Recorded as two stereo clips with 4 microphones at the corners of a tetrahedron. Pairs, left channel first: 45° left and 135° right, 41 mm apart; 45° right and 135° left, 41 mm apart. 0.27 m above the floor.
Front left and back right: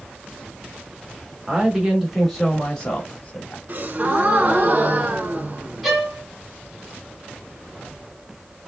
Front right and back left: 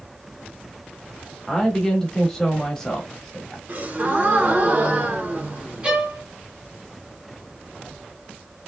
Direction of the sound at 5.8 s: 150° left.